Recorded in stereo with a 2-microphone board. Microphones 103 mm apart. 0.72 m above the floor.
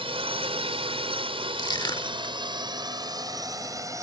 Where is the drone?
65° right (ahead or behind); by 4.0 s 30° right (ahead or behind).